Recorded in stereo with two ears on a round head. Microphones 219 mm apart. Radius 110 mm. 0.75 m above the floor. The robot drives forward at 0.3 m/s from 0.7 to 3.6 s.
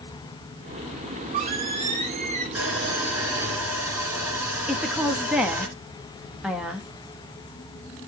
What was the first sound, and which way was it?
A squeak, 25° right (ahead or behind).